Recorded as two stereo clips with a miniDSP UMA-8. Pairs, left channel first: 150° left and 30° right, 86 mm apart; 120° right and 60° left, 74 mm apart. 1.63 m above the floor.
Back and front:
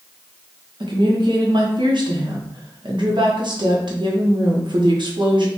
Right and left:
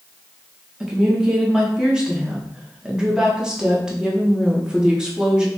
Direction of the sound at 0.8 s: 20° right.